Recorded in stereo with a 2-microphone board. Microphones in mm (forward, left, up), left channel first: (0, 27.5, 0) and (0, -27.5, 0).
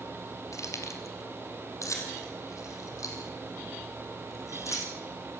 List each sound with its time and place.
0.5 s keys jangling: 70° left (ahead or behind), 2.5 m; by 4.9 s 75° left (ahead or behind), 6.5 m